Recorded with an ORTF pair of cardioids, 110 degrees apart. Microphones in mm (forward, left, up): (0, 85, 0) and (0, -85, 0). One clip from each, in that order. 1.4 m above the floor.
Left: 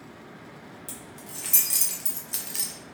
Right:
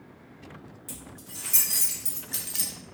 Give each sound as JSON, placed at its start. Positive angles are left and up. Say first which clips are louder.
{"t": 0.9, "sound": "keys jangling", "louder": "even", "azimuth_deg": 30, "distance_m": 1.6}